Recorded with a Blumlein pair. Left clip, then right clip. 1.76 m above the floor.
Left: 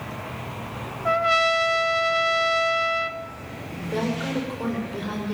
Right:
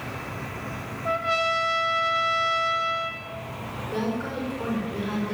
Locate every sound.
1.1 s a trumpet: 15° left, 1.2 m
3.9 s a woman speaking: 10° left, 6.5 m